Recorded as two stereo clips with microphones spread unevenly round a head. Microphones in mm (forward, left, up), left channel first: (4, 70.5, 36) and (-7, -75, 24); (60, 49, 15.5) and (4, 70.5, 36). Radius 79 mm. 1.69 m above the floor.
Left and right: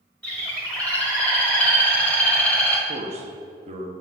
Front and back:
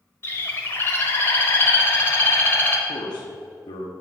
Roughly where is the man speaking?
Ahead right.